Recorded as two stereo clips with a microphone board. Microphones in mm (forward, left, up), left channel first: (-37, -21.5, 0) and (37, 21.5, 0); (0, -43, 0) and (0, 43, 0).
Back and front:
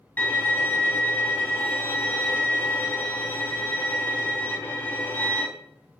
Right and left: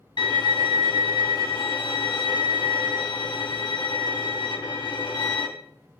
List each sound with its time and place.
0.2 s a violin: 80° right, 3 m